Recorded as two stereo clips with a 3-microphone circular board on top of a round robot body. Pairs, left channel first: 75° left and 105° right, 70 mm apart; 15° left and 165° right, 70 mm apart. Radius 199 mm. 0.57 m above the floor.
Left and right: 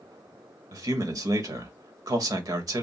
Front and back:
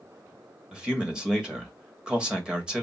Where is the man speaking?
85° right, 1.4 m.